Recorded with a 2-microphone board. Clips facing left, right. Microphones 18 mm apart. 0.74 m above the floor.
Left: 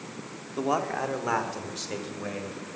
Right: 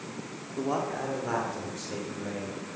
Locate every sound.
0.6 s a man speaking: 40° left (ahead or behind), 1.2 m; by 2.8 s 45° left (ahead or behind), 3 m